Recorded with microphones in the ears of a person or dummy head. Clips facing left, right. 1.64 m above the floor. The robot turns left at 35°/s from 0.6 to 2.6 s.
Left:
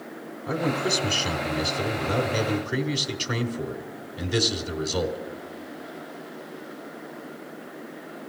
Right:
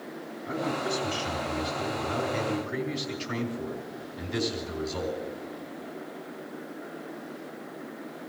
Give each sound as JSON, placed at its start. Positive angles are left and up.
{"t": 0.5, "sound": "a man speaking", "azimuth_deg": 120, "distance_m": 1.4}